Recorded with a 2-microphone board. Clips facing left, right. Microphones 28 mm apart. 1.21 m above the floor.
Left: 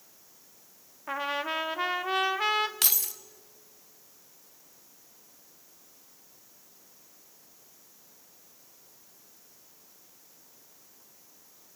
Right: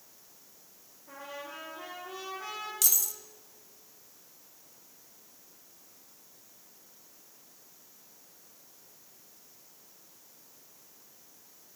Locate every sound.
1.1 s a trumpet: 70° left (ahead or behind), 0.7 m
2.8 s keys jangling: 45° left (ahead or behind), 0.6 m